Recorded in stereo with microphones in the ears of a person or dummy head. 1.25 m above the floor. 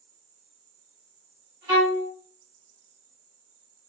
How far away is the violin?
About 2.0 m.